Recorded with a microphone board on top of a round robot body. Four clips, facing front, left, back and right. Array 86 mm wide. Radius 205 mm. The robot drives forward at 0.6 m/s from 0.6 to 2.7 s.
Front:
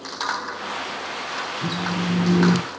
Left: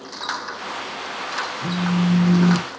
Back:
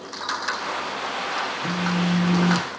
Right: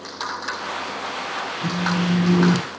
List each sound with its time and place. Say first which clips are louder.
1.6 s a phone buzzing: left 1 dB, even; 20° right, 1.4 m; by 2.7 s 40° right, 0.8 m